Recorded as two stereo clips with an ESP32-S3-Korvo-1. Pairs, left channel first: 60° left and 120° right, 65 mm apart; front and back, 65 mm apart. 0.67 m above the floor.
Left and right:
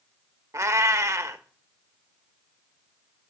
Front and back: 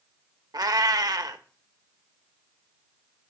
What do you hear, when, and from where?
0.5 s a cat meowing: 165° right, 0.7 m